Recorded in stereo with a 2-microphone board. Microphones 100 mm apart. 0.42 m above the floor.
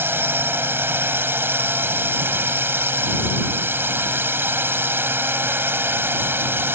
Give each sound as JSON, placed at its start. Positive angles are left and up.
{"t": 0.0, "sound": "a drone", "side_deg": -20}